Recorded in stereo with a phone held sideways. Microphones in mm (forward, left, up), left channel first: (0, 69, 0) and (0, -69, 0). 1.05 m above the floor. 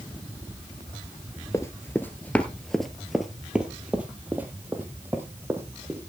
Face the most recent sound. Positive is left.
turn(degrees=-20)  # may be behind; listen again after turning